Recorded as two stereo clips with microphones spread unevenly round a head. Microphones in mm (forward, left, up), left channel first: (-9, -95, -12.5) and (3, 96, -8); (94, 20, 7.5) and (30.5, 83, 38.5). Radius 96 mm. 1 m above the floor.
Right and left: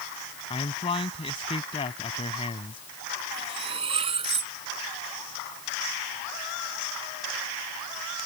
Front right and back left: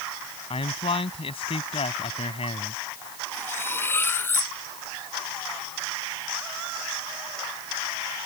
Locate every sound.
0.5 s a man speaking: 30° right
3.3 s cutlery clinking: 20° left